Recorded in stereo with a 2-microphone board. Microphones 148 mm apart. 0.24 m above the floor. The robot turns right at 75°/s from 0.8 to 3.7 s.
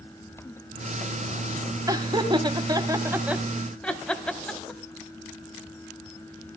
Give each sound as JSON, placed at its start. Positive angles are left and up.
{"t": 1.9, "sound": "laughter", "side_deg": -25, "distance_m": 1.2}